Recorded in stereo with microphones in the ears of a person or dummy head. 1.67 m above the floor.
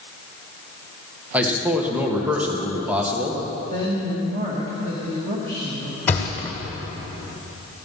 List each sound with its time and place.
1.3 s a man speaking: 10° right (ahead or behind), 1.6 m
3.7 s a woman speaking: 35° right (ahead or behind), 2 m
6.1 s a thud: 10° left (ahead or behind), 1.5 m